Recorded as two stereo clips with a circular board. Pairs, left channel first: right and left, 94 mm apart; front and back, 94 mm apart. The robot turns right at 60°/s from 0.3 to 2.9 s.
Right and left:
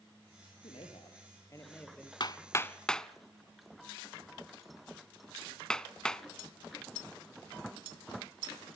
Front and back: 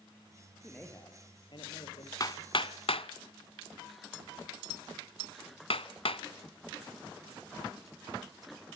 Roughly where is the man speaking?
Right.